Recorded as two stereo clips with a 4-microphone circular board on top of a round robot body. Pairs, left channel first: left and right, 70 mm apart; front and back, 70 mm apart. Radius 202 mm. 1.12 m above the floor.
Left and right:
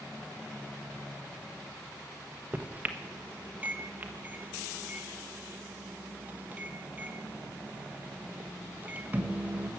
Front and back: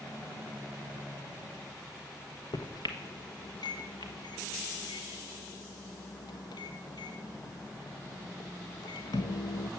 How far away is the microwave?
About 1.2 m.